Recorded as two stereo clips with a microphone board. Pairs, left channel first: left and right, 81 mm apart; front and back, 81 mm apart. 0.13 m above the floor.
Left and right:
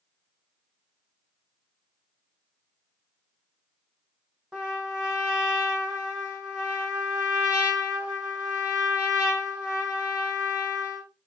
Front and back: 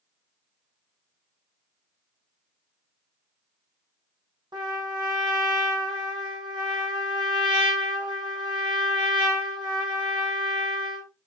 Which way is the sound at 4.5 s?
165° right.